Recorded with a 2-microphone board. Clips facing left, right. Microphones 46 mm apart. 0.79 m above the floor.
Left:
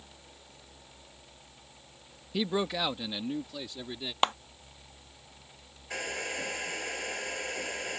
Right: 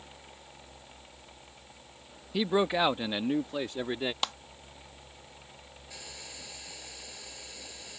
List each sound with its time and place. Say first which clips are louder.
2.3 s a man speaking: right 4 dB; 5° right (ahead or behind); by 4.1 s 45° right (ahead or behind)
4.2 s a clap: left 12 dB; 35° left (ahead or behind)
5.9 s a hair dryer: left 14 dB; 55° left (ahead or behind)